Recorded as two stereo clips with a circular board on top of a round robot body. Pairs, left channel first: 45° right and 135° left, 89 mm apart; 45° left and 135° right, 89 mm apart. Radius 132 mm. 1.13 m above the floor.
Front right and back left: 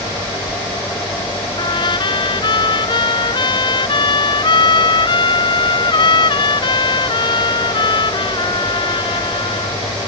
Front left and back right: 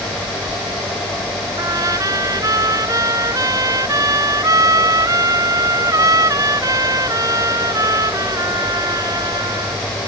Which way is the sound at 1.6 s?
85° right.